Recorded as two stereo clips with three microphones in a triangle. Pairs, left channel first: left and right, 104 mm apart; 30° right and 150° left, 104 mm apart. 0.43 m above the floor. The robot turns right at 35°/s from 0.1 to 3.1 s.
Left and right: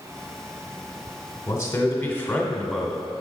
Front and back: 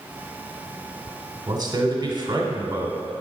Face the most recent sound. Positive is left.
turn(degrees=-170)